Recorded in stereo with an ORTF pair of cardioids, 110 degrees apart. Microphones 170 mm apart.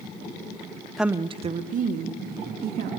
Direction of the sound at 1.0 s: Straight ahead.